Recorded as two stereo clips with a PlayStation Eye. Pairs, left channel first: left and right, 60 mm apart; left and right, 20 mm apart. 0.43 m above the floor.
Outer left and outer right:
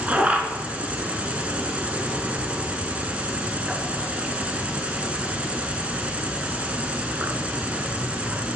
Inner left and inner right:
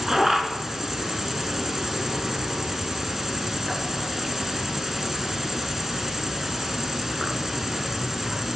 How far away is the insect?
About 0.7 m.